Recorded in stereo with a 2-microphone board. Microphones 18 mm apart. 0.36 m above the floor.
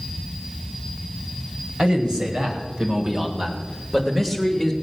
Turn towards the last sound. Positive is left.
turn(degrees=5)  # may be behind; listen again after turning